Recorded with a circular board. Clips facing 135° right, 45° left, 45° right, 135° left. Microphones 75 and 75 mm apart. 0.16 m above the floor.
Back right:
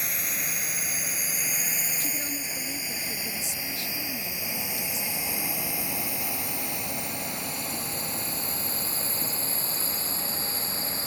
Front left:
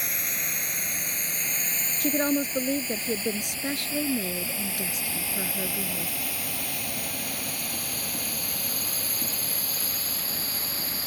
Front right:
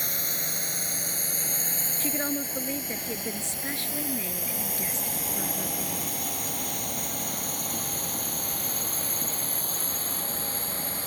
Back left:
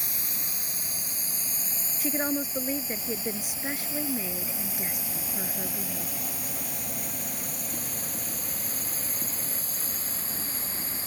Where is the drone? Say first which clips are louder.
Even, front right 5 dB; 45° right; by 11.1 s 75° right.